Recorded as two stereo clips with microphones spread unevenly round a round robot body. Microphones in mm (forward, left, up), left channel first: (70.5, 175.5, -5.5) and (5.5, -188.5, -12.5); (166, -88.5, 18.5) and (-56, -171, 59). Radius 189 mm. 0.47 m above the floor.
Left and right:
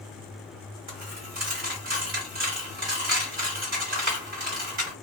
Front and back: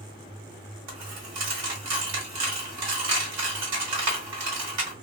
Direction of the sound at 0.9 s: 165° right.